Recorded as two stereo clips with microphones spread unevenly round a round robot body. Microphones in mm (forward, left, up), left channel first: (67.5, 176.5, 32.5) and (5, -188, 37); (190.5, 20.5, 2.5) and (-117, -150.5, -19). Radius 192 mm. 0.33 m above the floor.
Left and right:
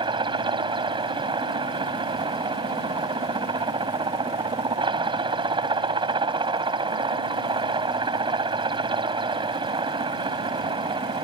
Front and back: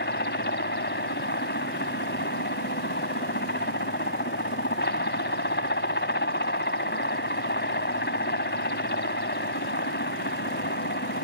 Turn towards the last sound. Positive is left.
turn(degrees=-25)